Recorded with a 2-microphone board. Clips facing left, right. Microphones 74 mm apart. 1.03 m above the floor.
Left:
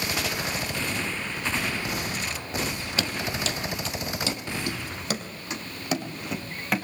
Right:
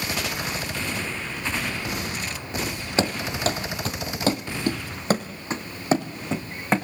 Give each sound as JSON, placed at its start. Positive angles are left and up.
{"t": 3.0, "sound": "running footsteps", "side_deg": -30, "distance_m": 1.5}